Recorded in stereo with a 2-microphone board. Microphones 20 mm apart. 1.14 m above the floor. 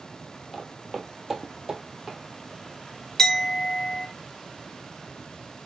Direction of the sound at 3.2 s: 30° left (ahead or behind).